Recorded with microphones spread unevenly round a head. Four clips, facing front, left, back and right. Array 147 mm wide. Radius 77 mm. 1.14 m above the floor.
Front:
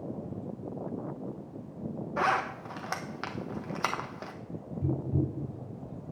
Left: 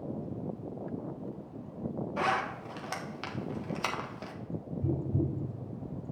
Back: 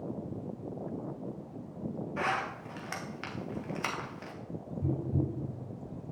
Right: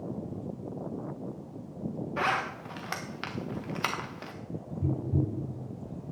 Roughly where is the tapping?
Ahead right.